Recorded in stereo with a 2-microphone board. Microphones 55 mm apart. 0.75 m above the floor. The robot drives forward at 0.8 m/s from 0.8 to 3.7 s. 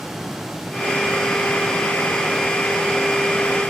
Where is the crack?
No crack in this recording.